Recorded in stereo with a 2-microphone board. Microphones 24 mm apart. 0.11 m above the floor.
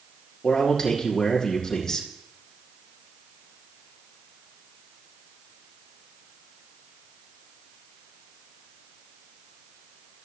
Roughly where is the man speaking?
Left.